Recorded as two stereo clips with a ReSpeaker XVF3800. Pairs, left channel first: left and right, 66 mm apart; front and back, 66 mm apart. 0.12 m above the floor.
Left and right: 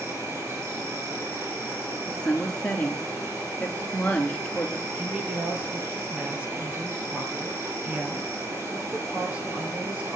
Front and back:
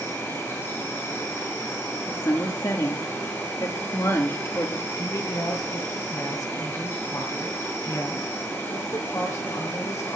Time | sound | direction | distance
0.0 | an insect | 50° right | 8 m
2.1 | a woman speaking | 15° left | 2.5 m
5.0 | a woman speaking | 25° right | 3 m